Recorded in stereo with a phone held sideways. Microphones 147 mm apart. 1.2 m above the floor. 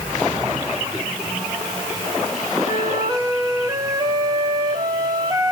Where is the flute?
30° right (ahead or behind), 2 m.